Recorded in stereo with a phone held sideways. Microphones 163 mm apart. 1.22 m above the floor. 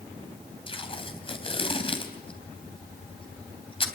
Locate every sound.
0.7 s tape being pulled: 35° left (ahead or behind), 3 m